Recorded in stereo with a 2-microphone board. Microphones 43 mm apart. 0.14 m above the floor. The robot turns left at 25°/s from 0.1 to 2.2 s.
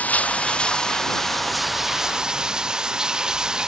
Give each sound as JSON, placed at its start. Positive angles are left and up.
{"t": 0.0, "sound": "running water", "azimuth_deg": 35}